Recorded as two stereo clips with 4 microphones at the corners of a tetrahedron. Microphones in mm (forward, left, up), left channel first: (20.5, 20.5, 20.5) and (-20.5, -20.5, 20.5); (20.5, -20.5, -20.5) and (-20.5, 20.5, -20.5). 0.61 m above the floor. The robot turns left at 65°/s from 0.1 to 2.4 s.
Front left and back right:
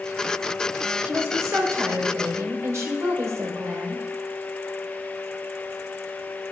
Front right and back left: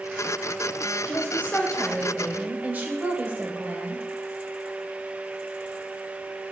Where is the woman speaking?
80° right, 2.5 m; by 4.0 s 165° right, 2.5 m.